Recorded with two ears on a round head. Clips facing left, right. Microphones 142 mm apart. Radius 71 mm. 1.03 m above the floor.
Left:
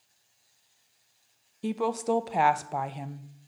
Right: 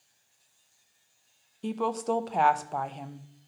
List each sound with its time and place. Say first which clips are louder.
1.6 s a woman speaking: left 1 dB; 5° left (ahead or behind), 0.5 m